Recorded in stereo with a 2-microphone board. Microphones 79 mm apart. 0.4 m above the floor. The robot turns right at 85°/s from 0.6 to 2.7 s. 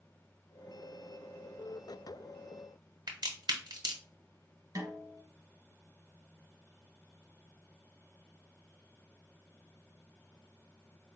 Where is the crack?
65° right (ahead or behind), 1.2 m.